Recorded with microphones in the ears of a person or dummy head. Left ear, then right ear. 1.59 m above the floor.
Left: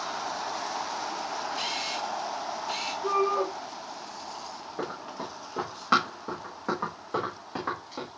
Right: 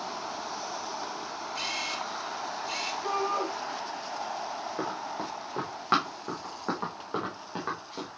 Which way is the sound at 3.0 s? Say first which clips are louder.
Left 5 dB; 35° right (ahead or behind).